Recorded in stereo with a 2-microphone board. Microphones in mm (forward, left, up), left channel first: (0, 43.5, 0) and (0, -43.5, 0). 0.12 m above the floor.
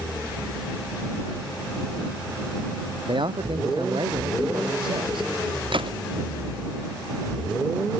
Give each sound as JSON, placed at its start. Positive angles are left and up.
{"t": 3.1, "sound": "a man speaking", "side_deg": -70}
{"t": 5.7, "sound": "a gunshot", "side_deg": -75}